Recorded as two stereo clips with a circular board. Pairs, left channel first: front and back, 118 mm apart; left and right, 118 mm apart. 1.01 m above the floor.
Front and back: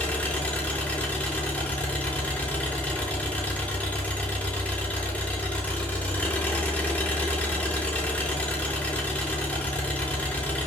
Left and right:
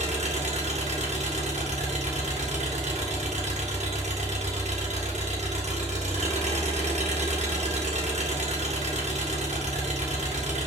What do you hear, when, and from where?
0.0 s an engine running: 80° right, 3 m